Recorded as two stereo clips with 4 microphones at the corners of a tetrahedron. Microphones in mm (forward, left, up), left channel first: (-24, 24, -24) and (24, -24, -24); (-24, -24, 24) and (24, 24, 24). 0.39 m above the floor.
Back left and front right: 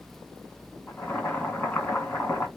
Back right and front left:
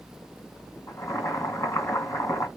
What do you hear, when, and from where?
0.9 s boiling: 165° right, 1.5 m